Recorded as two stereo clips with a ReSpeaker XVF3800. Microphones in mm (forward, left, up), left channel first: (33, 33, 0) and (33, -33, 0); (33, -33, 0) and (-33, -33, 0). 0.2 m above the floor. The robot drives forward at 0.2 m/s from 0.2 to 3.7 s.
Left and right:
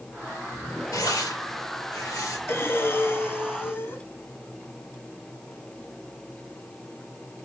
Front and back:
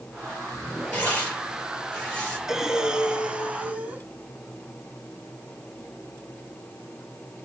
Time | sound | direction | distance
0.9 | tearing paper | 70° left | 4 m
2.5 | breathing | 100° left | 0.8 m